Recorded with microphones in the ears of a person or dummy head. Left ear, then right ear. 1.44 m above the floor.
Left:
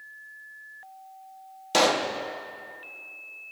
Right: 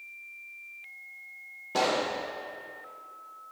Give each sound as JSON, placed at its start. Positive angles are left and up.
{"t": 1.7, "sound": "a pop", "side_deg": 80, "distance_m": 1.1}